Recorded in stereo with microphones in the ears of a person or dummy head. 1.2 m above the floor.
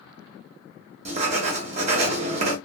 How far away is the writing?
About 0.9 m.